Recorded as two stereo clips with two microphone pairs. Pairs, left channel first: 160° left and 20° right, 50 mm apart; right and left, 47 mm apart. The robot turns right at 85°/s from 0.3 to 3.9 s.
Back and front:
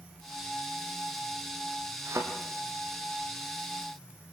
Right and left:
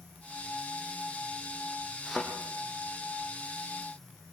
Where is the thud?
5° right, 4.5 m; by 2.2 s 10° left, 4.5 m.